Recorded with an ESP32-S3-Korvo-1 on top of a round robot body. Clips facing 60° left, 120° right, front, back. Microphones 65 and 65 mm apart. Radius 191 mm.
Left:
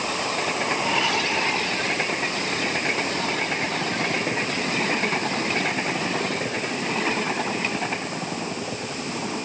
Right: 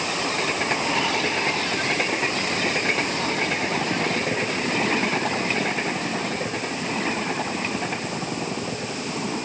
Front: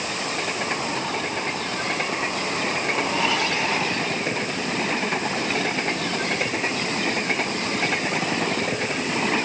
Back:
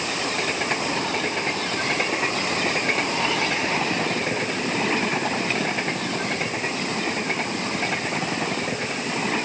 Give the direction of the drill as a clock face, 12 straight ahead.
No drill in this recording.